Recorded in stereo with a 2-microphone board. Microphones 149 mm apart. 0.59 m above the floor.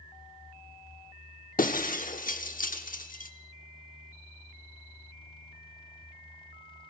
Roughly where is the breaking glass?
Left.